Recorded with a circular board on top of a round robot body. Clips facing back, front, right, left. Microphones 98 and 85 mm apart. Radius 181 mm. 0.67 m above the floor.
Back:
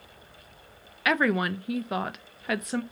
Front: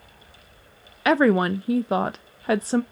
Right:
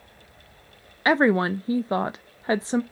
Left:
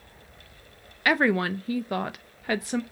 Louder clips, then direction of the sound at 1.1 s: Front 7 dB, right 3 dB; 40° right.